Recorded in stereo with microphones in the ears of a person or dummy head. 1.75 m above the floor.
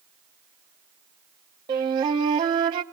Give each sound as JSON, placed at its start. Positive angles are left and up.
{"t": 1.7, "sound": "a flute", "side_deg": -30, "distance_m": 0.9}